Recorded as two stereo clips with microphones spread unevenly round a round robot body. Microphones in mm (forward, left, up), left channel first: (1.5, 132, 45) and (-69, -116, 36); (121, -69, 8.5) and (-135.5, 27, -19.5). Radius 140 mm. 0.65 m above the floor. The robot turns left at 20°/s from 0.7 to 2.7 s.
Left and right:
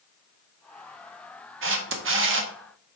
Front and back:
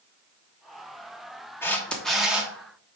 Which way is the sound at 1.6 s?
105° right.